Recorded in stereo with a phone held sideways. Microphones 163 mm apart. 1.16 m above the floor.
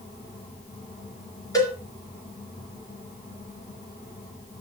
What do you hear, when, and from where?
0.0 s a fan: 85° left, 7.5 m
1.5 s a cowbell: 20° left (ahead or behind), 3.5 m